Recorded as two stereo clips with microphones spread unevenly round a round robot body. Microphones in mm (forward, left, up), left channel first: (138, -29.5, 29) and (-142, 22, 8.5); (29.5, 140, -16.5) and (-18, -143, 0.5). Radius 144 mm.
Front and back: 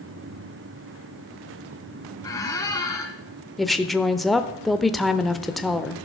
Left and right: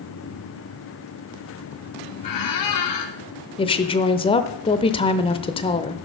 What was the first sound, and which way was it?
A squeak, 70° left.